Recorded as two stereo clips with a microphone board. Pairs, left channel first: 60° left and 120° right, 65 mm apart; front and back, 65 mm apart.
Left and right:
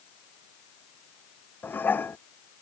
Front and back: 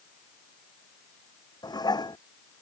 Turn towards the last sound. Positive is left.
turn(degrees=0)